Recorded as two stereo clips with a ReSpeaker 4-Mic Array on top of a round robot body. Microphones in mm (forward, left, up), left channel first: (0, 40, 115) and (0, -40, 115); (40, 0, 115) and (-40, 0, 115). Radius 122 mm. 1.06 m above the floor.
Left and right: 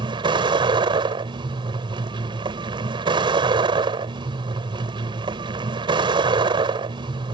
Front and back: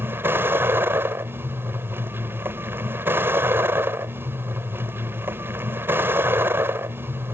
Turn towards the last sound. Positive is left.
turn(degrees=-115)